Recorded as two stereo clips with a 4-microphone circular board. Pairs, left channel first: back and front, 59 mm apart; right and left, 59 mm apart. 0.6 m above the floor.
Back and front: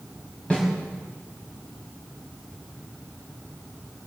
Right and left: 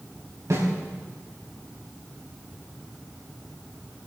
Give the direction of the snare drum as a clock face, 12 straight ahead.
8 o'clock.